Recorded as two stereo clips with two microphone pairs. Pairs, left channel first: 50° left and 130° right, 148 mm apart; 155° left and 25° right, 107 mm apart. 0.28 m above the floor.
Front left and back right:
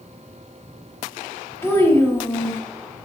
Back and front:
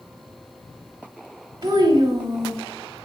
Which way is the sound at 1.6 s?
10° right.